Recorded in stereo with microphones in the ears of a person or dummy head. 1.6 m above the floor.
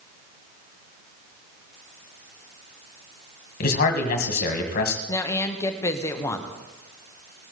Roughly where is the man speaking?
Left.